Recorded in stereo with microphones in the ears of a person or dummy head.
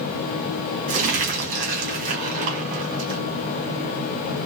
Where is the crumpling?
50° right (ahead or behind), 1.7 m.